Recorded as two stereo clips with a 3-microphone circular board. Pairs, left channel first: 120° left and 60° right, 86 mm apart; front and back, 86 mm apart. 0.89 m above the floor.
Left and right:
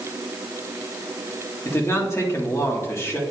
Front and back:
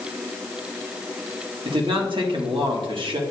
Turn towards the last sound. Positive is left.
turn(degrees=175)